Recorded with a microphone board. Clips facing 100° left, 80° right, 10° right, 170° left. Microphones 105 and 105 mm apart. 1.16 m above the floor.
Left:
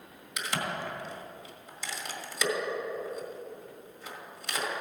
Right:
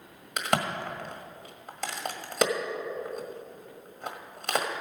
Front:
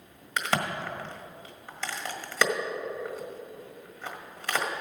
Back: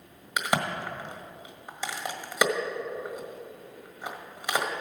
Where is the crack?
115° right, 1.5 m.